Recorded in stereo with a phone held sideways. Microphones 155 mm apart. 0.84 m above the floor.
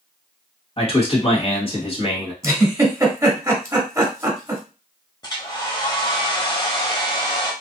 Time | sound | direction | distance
0.8 | a man speaking | 35° left (ahead or behind) | 1.3 m
2.4 | a giggle | 20° right (ahead or behind) | 1.1 m
5.2 | a hair dryer | 25° left (ahead or behind) | 0.9 m